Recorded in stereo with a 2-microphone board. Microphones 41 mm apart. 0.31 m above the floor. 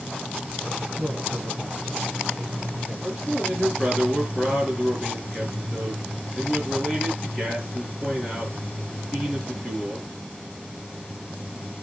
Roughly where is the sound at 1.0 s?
Left.